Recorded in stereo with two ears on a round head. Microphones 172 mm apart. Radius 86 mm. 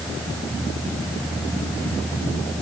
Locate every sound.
Only background noise.